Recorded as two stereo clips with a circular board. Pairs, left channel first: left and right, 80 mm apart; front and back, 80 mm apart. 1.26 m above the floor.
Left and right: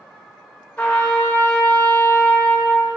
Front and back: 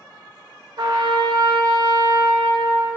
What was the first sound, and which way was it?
A trumpet, 165° left.